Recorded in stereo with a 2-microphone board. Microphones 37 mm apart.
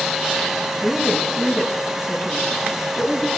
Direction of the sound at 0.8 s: 5° right (ahead or behind).